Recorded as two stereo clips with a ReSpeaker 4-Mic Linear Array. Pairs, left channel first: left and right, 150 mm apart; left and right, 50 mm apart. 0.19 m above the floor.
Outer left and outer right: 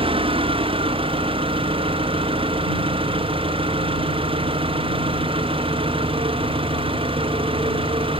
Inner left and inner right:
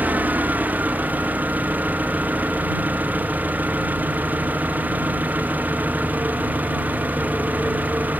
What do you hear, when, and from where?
0.0 s an engine running: 35° right (ahead or behind)